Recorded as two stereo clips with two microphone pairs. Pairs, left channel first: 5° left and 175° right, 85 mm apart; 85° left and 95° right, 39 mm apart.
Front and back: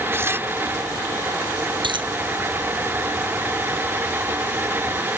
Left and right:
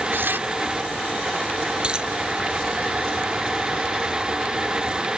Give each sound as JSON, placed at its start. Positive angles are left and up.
{"t": 0.1, "sound": "tearing paper", "azimuth_deg": -115}
{"t": 1.8, "sound": "a dropped coin", "azimuth_deg": -165}